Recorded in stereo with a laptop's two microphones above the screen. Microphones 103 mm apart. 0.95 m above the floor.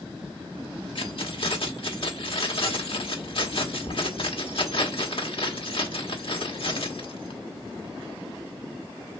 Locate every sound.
0.9 s keys jangling: 60° left (ahead or behind), 1.3 m